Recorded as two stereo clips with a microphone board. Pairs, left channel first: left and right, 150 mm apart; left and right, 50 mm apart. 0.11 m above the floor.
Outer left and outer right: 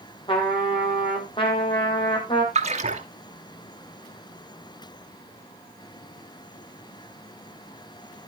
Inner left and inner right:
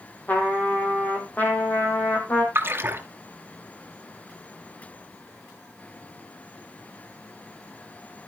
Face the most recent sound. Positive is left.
turn(degrees=-45)  # may be behind; listen again after turning